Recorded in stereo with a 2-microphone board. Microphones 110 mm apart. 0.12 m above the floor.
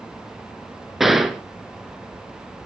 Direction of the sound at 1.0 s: Centre (ahead or behind).